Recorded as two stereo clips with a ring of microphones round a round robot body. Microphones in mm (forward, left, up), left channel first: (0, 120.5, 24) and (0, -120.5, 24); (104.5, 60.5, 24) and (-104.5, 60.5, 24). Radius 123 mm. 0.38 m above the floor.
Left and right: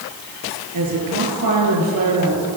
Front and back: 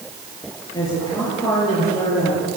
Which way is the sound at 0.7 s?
75° right.